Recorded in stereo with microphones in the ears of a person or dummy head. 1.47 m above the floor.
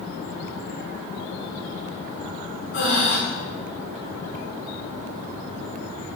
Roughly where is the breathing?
Left.